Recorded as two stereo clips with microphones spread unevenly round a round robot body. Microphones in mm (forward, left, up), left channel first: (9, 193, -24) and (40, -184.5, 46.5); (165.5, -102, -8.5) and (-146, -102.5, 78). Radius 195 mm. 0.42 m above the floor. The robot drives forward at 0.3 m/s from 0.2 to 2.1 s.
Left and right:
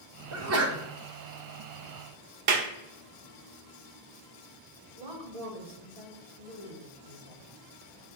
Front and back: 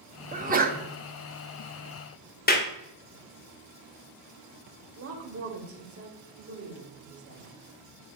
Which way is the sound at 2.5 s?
40° right.